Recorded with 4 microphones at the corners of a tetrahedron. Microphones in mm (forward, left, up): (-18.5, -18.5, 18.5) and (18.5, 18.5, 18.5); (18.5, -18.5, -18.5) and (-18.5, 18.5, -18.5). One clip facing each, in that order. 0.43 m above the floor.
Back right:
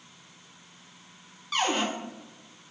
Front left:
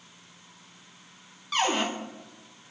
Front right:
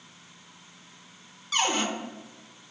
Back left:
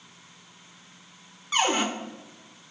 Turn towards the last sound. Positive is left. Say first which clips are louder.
# front left 1 dB, back left 2 dB
turn(degrees=135)